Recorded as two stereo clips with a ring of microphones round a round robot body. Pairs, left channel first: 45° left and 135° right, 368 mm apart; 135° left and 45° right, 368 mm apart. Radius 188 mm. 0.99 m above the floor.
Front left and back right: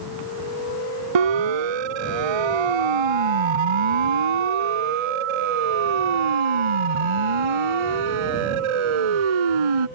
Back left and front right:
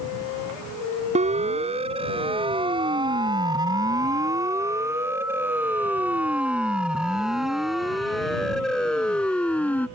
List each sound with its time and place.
1.1 s a siren: 120° right; by 9.9 s 140° right